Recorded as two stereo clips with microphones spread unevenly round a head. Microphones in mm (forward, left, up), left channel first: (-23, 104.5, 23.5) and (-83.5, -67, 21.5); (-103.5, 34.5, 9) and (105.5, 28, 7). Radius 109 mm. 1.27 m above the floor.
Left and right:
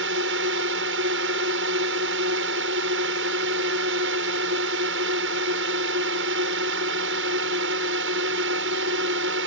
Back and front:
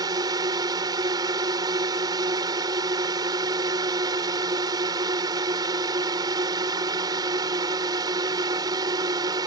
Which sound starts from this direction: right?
A drone, at 0.0 s.